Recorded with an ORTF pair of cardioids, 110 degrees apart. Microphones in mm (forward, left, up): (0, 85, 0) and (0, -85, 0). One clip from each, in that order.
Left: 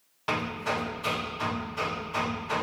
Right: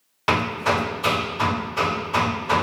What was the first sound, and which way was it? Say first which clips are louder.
Hammering: right 8 dB; 55° right.